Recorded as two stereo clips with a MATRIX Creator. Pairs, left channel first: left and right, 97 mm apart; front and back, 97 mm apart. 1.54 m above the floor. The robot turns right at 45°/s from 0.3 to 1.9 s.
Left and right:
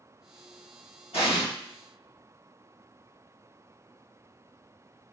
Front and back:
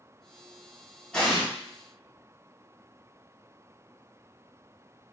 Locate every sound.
1.1 s an explosion: 80° left, 1.5 m; by 1.4 s 95° left, 1.5 m